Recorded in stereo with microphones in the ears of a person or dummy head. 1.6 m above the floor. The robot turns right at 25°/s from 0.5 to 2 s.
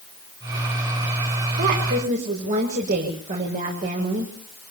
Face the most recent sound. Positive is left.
turn(degrees=-45)  # may be behind; listen again after turning